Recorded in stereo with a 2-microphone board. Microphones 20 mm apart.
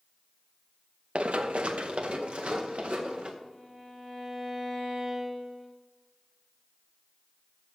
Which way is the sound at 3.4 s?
20° right (ahead or behind).